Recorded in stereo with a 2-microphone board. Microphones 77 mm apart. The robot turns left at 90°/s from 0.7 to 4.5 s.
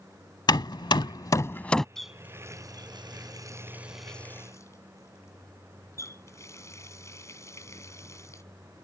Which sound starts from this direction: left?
Hammering, at 0.5 s.